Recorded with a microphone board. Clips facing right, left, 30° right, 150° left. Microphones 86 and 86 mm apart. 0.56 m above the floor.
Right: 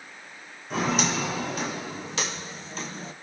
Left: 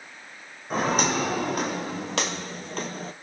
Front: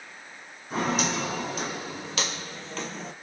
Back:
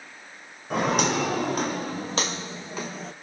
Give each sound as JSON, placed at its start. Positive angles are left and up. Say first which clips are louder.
{"t": 0.7, "sound": "footsteps", "louder": "left 2 dB, back 4 dB", "azimuth_deg": 130, "distance_m": 1.9}